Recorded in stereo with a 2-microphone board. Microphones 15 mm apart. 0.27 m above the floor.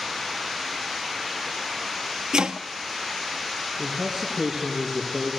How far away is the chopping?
About 0.9 m.